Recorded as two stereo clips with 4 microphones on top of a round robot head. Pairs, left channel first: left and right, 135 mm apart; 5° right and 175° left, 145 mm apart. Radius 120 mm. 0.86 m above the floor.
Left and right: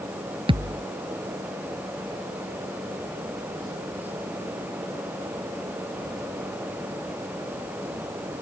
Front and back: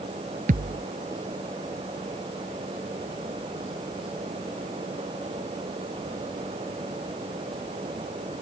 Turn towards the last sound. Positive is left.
turn(degrees=-140)